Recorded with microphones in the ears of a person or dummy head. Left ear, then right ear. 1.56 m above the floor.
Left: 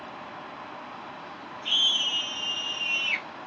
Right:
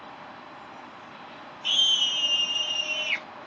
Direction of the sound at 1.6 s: 80° right.